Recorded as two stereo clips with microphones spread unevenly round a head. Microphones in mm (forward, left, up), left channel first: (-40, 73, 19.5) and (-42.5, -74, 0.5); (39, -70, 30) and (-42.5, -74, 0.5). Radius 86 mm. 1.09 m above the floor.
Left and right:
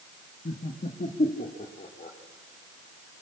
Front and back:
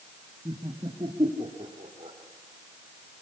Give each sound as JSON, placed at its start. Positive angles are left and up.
{"t": 0.5, "sound": "laughter", "azimuth_deg": 130, "distance_m": 1.8}